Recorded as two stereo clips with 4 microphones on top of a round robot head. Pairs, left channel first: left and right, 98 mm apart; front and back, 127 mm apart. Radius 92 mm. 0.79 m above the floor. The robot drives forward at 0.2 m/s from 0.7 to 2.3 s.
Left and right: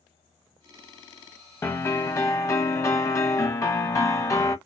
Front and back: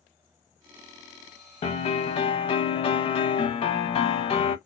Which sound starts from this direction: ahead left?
A piano, at 1.6 s.